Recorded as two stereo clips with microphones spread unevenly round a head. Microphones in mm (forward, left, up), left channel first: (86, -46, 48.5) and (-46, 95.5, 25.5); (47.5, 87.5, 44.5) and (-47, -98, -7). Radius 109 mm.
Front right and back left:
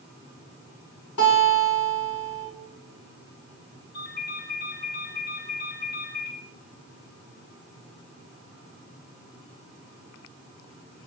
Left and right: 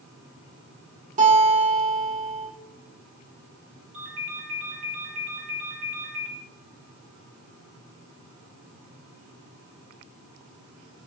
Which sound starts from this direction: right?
A ringtone, at 3.9 s.